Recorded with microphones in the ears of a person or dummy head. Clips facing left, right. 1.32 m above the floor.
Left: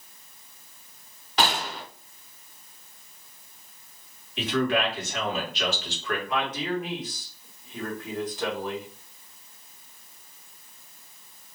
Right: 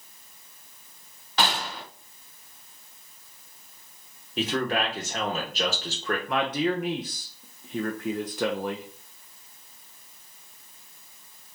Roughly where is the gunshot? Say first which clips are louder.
Left 1 dB; centre.